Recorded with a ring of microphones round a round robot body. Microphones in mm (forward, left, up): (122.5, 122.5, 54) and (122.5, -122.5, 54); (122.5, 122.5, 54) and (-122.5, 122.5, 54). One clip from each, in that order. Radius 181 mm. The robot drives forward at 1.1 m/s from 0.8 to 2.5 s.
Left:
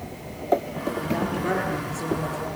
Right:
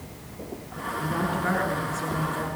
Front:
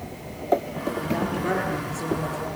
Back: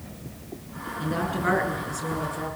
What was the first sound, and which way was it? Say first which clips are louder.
A woman speaking: right 1 dB, back 2 dB; 155° right.